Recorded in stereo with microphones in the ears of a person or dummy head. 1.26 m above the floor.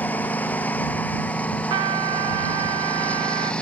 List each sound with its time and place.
0.0 s a lawn mower: 15° left (ahead or behind); by 3.6 s 10° left (ahead or behind)
1.7 s a trumpet: 35° right (ahead or behind)